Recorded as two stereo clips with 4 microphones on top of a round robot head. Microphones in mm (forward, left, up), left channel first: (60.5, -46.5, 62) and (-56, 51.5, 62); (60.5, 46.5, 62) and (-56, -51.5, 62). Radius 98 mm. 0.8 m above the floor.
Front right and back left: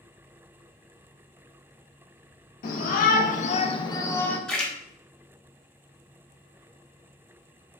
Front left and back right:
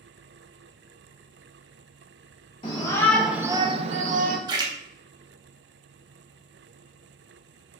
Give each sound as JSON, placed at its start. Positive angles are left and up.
{"t": 2.6, "sound": "a shout", "azimuth_deg": -15, "distance_m": 0.7}
{"t": 4.5, "sound": "a splash", "azimuth_deg": -120, "distance_m": 0.8}